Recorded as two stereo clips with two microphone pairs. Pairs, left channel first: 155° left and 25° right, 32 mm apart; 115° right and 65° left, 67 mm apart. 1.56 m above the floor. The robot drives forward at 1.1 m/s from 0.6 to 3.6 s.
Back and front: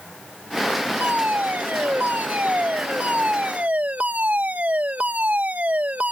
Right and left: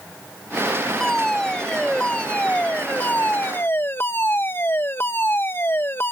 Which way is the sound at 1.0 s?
35° right.